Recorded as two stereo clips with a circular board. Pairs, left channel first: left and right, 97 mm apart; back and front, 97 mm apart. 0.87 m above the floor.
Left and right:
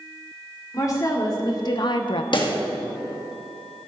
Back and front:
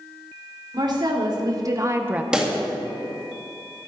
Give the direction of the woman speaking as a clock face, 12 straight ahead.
11 o'clock.